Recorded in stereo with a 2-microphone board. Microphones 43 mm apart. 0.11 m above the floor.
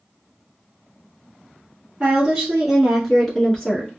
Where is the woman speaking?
20° right (ahead or behind), 1.3 m; by 3.9 s 20° left (ahead or behind), 1.3 m.